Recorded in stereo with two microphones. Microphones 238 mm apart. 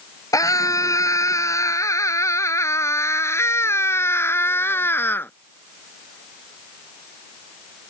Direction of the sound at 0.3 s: 15° left (ahead or behind).